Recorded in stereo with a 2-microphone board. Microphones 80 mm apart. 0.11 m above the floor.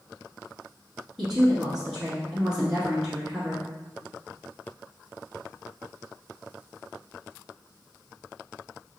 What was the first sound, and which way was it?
A woman speaking, 10° right (ahead or behind).